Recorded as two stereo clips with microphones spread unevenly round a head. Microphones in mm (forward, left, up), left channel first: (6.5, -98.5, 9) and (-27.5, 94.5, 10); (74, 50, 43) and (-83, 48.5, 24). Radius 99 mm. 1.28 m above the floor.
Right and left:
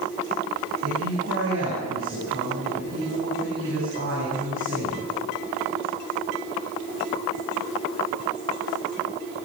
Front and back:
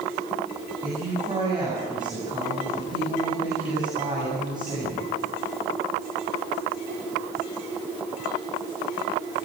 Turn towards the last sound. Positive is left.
turn(degrees=120)